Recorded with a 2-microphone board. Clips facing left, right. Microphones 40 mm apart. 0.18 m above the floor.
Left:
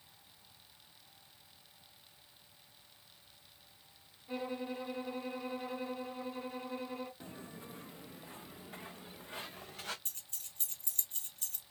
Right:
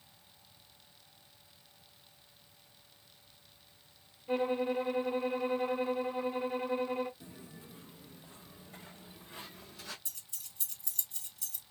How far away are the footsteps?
About 0.7 m.